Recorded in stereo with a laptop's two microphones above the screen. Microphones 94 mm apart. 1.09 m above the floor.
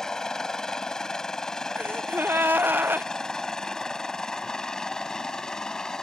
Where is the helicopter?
5° left (ahead or behind).